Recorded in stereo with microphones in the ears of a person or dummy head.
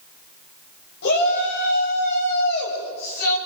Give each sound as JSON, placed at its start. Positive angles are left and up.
{"t": 1.0, "sound": "a shout", "side_deg": 65, "distance_m": 7.5}